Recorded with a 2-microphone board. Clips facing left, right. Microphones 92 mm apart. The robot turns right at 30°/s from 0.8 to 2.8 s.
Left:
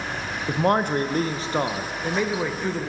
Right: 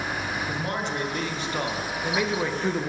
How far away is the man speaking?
About 0.5 m.